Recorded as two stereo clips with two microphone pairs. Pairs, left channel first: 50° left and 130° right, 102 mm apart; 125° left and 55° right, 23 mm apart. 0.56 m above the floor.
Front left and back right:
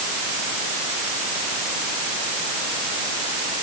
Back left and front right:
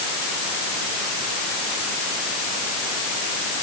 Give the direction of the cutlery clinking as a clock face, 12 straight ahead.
No cutlery clinking in this recording.